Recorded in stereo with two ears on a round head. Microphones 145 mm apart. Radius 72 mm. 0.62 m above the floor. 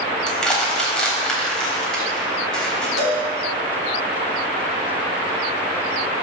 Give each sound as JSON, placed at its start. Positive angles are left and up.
{"t": 0.3, "sound": "crushing", "side_deg": 5, "distance_m": 4.0}
{"t": 3.0, "sound": "a cowbell", "side_deg": 85, "distance_m": 4.5}